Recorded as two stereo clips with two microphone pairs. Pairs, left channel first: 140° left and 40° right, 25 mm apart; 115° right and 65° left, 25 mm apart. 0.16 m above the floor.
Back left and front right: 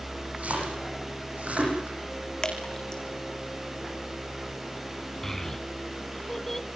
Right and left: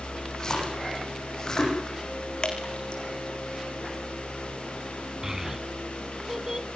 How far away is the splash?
About 9.5 m.